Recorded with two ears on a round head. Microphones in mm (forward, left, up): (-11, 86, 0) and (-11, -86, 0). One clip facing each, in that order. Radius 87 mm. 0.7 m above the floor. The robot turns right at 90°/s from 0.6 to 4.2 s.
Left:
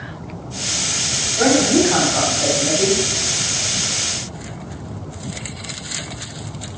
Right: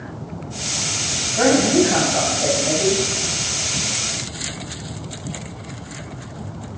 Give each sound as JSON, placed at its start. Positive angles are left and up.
{"t": 1.4, "sound": "a woman speaking", "azimuth_deg": -85, "distance_m": 4.0}